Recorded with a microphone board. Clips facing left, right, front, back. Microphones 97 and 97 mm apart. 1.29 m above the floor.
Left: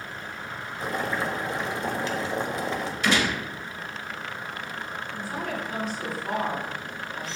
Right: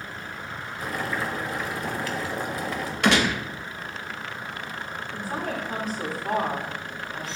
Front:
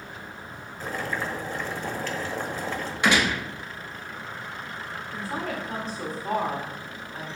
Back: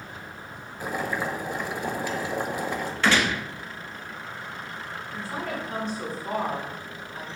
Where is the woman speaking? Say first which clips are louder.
Right 2 dB, front 1 dB; 45° right, 3.5 m.